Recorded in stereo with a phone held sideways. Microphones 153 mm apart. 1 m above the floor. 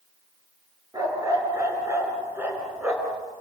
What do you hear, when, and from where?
0.9 s a dog barking: 25° right (ahead or behind), 7 m; by 3.2 s 5° right (ahead or behind), 5.5 m